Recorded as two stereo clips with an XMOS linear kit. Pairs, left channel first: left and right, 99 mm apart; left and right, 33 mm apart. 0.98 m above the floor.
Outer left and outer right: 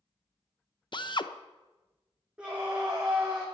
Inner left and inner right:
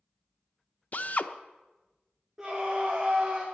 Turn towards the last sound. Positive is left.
turn(degrees=-10)  # may be behind; listen again after turning